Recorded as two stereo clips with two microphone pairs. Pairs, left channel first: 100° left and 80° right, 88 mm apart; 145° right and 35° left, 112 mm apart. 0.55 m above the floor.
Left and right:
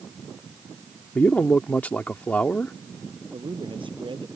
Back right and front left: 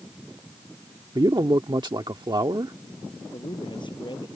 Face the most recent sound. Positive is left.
turn(degrees=-100)